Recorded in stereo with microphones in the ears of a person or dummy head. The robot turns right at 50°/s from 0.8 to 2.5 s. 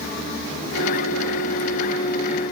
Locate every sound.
Only background noise.